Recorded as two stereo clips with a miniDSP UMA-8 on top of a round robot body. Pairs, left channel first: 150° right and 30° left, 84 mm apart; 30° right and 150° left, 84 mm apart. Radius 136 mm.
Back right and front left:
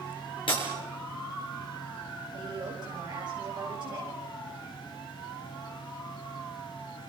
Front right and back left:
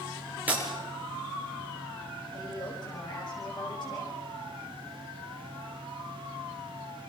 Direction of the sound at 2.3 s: Straight ahead.